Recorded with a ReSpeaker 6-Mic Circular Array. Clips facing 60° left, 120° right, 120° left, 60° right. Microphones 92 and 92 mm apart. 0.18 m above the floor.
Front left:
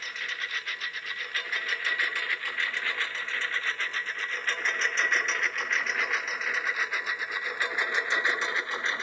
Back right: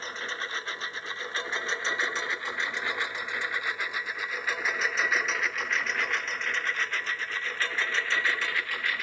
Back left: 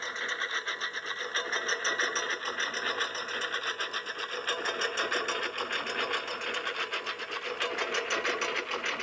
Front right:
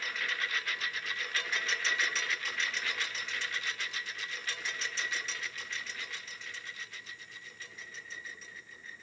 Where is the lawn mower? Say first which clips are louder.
Back right 2 dB, back left 2 dB; straight behind; by 9.0 s 125° left.